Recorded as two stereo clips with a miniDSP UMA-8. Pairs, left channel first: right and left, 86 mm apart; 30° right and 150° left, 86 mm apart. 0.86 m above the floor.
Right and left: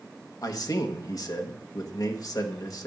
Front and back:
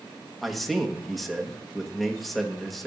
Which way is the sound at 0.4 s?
120° right.